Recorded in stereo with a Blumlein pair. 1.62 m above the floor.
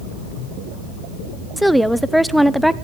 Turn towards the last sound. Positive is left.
turn(degrees=0)